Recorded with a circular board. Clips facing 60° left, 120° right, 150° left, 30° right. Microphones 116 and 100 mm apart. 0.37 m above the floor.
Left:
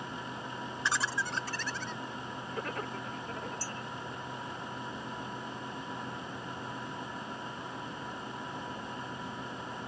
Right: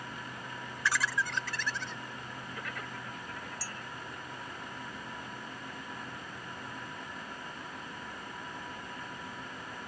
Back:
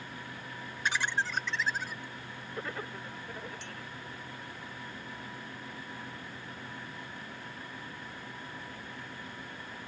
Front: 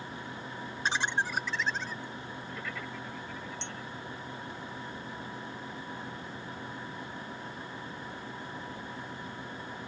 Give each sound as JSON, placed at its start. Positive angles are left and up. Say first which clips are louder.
{"t": 0.8, "sound": "laughter", "louder": "right 2 dB, front 1 dB", "azimuth_deg": 10}
{"t": 3.6, "sound": "a clink", "louder": "left 3 dB, front 3 dB", "azimuth_deg": -90}